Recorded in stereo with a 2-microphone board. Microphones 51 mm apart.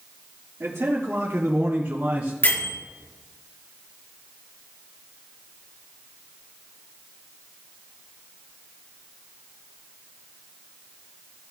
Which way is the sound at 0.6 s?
60° right (ahead or behind).